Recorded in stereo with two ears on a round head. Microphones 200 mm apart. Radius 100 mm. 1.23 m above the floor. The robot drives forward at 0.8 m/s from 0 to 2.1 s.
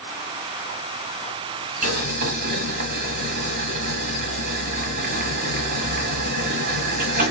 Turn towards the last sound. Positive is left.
turn(degrees=-45)  # may be behind; listen again after turning